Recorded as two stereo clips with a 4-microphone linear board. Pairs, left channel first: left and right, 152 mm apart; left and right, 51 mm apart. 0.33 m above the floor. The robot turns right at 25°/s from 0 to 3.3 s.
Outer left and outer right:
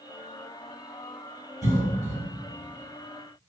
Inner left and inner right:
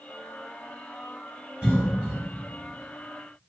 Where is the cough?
25° right (ahead or behind), 1.5 m; by 2.2 s 20° right (ahead or behind), 1.5 m.